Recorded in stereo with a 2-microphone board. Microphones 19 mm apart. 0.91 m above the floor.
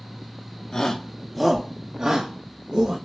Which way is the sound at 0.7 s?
40° left (ahead or behind).